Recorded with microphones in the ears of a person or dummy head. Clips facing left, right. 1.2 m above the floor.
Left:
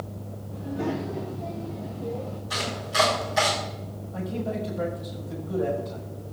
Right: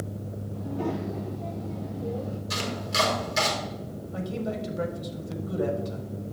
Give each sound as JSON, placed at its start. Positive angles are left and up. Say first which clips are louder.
{"t": 0.5, "sound": "a child speaking", "louder": "left 2 dB", "side_deg": 20, "distance_m": 2.5}
{"t": 2.5, "sound": "chopping", "louder": "left 3 dB", "side_deg": -35, "distance_m": 4.0}
{"t": 4.1, "sound": "a man speaking", "louder": "left 1 dB", "side_deg": -45, "distance_m": 4.0}